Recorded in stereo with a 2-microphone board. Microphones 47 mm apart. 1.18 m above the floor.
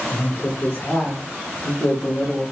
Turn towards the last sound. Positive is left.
turn(degrees=0)  # may be behind; listen again after turning